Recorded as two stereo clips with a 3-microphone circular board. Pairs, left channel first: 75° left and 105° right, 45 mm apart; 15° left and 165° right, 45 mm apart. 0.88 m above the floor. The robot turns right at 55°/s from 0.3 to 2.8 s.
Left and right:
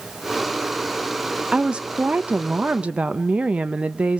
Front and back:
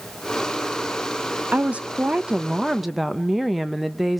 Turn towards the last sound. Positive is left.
turn(degrees=-80)